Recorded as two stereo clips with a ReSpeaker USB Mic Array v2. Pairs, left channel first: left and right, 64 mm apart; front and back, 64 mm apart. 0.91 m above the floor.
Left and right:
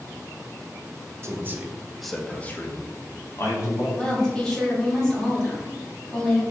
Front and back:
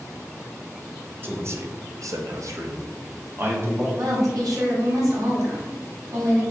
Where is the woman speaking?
170° left, 1.9 m.